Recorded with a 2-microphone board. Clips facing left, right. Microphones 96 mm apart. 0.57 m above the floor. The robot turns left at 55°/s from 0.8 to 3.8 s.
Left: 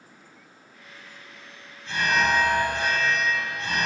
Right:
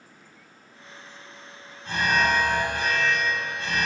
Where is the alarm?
115° right, 3 m; by 3.9 s 135° left, 3 m.